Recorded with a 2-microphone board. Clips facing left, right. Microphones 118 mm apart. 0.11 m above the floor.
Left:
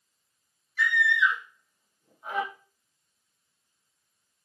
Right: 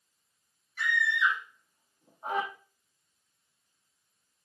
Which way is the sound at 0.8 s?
45° right (ahead or behind).